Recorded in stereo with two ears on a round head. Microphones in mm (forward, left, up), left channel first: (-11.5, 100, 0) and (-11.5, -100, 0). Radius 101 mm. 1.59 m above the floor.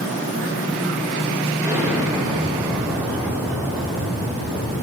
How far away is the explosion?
About 5.5 m.